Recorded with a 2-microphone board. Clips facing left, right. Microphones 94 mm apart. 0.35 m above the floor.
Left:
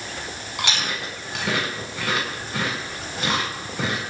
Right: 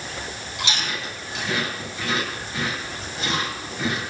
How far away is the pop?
No pop in this recording.